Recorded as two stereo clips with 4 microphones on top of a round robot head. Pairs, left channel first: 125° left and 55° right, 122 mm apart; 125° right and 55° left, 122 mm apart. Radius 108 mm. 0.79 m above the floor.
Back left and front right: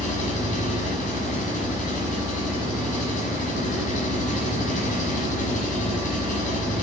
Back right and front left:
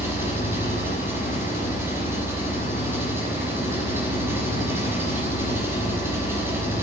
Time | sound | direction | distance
0.0 | an engine running | 125° left | 6.5 m